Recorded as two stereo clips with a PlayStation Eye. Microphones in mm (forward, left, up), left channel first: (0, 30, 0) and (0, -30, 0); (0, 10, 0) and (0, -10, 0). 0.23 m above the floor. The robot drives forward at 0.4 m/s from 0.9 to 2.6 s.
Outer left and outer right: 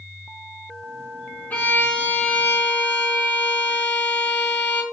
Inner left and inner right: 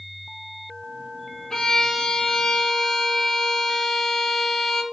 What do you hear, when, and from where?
1.5 s a violin: 25° left (ahead or behind), 1.7 m